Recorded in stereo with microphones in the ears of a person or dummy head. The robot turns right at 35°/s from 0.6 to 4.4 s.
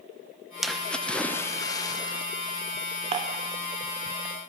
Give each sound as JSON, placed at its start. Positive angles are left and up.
{"t": 0.6, "sound": "a splash", "azimuth_deg": -5, "distance_m": 0.6}
{"t": 3.1, "sound": "dishes clattering", "side_deg": -30, "distance_m": 1.0}